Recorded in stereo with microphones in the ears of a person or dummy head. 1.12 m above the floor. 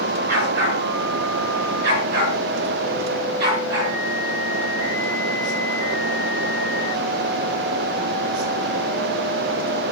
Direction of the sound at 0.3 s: 60° right (ahead or behind).